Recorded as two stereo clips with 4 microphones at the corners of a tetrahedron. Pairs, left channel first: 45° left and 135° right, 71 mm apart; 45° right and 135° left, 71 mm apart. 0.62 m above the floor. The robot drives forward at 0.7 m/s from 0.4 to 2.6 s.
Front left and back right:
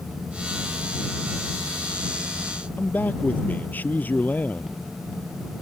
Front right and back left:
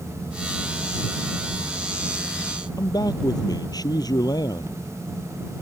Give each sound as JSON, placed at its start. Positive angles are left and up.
{"t": 2.8, "sound": "a man speaking", "azimuth_deg": -20}